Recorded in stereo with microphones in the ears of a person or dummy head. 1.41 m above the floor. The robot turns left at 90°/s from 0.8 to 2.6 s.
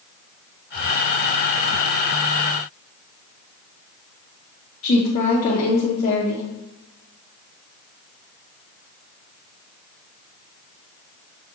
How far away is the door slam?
No door slam in this recording.